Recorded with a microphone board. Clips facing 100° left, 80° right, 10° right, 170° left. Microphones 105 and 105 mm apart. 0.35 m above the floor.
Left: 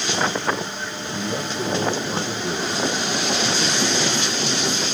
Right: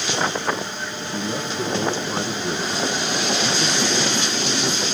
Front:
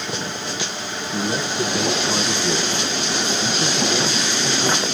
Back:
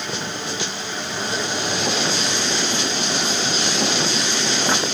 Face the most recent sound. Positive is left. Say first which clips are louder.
# even, front 3 dB
turn(degrees=-5)